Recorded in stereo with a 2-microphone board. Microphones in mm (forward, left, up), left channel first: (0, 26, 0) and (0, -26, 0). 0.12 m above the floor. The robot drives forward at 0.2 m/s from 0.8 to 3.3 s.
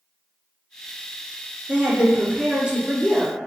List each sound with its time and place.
1.7 s a woman speaking: 25° right (ahead or behind), 1.3 m